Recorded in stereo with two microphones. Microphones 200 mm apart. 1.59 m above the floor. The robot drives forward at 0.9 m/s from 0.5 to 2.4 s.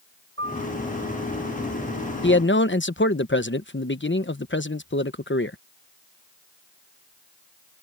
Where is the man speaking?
65° left (ahead or behind); by 5.6 s 70° left (ahead or behind).